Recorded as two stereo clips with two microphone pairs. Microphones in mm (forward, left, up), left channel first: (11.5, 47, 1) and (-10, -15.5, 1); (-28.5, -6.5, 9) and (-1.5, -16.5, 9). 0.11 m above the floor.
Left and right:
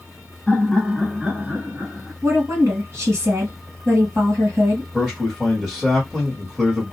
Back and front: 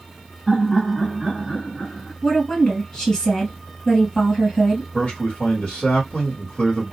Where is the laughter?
75° left, 1.3 m; by 2.1 s 150° right, 1.3 m.